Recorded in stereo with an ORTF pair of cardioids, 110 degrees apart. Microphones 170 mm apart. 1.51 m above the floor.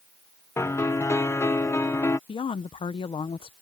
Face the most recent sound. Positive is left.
turn(degrees=30)